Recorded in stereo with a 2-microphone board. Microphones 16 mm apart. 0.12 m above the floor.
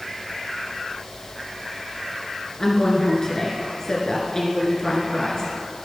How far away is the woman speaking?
About 1.9 m.